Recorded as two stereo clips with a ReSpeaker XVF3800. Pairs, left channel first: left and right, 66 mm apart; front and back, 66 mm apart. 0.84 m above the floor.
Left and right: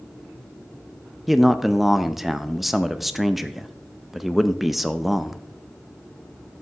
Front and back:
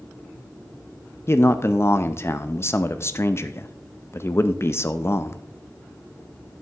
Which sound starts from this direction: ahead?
A man speaking, at 1.3 s.